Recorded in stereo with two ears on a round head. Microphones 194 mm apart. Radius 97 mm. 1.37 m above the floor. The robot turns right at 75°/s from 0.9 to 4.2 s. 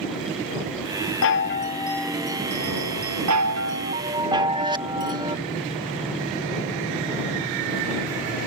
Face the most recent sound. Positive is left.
turn(degrees=-20)